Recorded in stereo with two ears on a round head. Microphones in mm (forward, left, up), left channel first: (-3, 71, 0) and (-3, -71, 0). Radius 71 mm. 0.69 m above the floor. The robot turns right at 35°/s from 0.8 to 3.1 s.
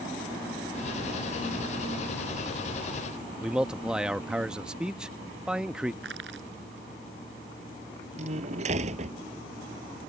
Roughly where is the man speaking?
Centre.